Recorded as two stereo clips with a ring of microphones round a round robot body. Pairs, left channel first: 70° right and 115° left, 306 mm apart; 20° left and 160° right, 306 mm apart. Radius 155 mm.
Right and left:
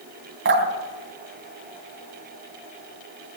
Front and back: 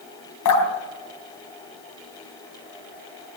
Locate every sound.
0.5 s dripping: 60° left, 3.5 m